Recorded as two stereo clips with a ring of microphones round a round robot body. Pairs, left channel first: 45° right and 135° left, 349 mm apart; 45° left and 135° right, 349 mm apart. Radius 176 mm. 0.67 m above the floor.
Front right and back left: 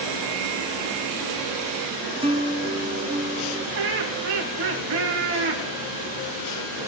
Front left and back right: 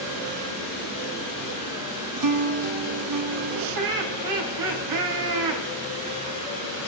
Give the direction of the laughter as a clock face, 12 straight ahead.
6 o'clock.